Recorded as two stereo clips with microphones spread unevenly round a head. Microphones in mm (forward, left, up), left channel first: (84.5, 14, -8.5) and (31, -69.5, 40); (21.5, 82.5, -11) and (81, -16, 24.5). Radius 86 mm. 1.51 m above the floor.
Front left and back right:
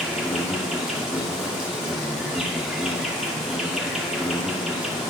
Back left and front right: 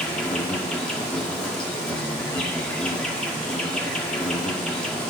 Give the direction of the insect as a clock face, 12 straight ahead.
9 o'clock.